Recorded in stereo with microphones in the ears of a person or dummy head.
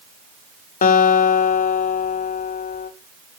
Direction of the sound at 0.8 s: 40° left (ahead or behind).